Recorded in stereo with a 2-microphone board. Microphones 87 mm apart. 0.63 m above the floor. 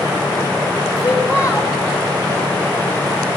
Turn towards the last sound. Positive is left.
turn(degrees=30)  # may be behind; listen again after turning